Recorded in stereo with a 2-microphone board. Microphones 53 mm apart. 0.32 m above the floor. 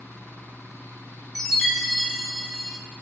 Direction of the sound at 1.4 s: Centre (ahead or behind).